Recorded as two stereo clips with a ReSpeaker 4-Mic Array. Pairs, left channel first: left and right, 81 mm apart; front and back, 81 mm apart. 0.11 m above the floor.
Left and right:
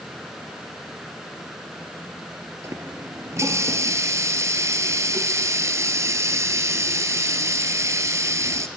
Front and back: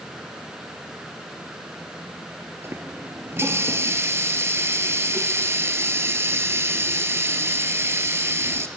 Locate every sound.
2.6 s a running tap: 130° right, 1.5 m